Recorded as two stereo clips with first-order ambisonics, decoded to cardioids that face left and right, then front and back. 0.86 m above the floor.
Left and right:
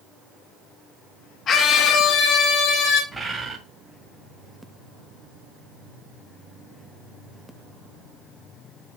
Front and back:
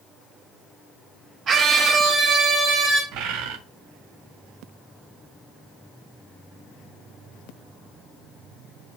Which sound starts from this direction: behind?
A bird, at 3.1 s.